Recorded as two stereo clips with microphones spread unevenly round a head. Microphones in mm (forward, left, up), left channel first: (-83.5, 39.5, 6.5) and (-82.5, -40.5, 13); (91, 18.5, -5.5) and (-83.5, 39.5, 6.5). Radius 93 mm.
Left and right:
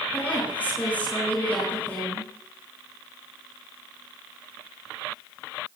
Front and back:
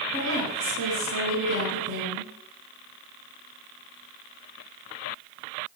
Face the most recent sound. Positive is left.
turn(degrees=165)